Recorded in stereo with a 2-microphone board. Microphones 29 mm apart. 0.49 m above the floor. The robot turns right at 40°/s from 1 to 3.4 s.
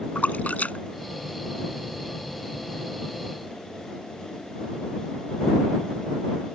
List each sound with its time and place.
0.1 s a splash: 70° left (ahead or behind); by 2.1 s 65° left (ahead or behind)